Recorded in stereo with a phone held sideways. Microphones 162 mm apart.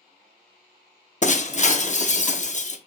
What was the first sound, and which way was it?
Breaking glass, 50° left (ahead or behind).